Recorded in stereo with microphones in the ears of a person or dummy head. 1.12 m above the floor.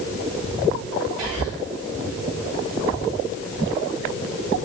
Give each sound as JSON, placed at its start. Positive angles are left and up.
{"t": 1.2, "sound": "whispering", "side_deg": 0, "distance_m": 1.5}